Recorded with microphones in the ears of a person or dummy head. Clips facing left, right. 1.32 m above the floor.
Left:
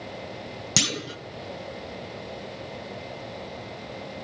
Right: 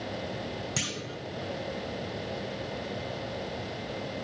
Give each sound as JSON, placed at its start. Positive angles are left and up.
{"t": 0.8, "sound": "a clunk", "side_deg": 55, "distance_m": 0.8}